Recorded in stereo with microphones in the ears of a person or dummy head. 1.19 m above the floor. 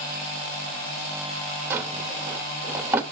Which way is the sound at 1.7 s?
10° right (ahead or behind).